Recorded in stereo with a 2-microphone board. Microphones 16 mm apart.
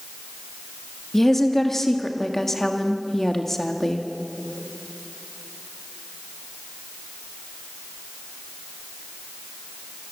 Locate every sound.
1.1 s a woman speaking: 20° left (ahead or behind), 1.8 m